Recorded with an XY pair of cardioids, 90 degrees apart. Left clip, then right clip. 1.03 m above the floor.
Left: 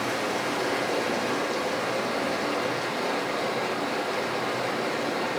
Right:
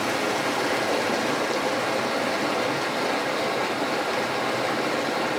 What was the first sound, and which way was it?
Running water, 40° right.